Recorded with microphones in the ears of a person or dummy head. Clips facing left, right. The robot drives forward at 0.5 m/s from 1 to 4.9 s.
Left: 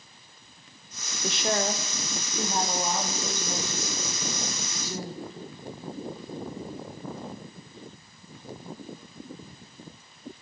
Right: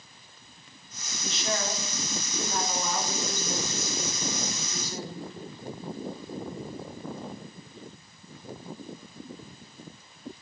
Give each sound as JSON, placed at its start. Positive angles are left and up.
{"t": 1.2, "sound": "a woman speaking", "side_deg": 50, "distance_m": 0.5}